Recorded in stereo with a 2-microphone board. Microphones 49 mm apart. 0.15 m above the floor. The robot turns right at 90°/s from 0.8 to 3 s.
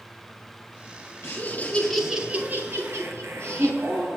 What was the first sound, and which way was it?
Laughter, 110° left.